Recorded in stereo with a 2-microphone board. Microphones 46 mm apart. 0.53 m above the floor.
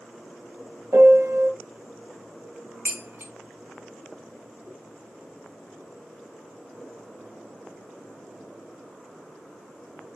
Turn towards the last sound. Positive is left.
turn(degrees=-55)  # may be behind; listen again after turning